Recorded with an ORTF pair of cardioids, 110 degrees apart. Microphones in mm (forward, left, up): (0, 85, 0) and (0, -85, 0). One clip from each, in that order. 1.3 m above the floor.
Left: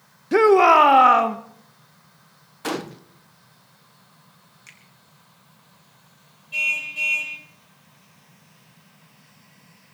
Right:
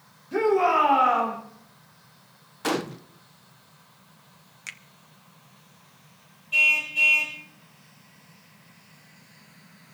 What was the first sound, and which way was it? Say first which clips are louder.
A shout: left 8 dB; 70° left.